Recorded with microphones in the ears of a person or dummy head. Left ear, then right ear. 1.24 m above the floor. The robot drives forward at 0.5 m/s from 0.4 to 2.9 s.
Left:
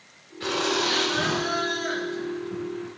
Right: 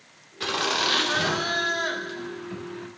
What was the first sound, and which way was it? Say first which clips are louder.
Laughter: even; 30° right (ahead or behind).